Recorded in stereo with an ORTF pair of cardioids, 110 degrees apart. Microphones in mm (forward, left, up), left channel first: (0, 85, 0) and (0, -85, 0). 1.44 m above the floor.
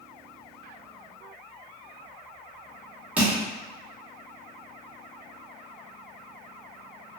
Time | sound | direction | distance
3.2 | crushing | 10° right | 1.0 m